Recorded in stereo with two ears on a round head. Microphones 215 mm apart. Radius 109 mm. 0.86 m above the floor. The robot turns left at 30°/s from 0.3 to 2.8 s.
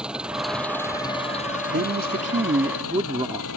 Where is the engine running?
175° right; by 3.6 s 110° left.